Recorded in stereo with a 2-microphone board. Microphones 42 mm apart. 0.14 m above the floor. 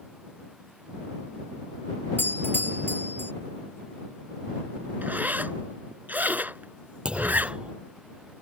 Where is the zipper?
45° right (ahead or behind).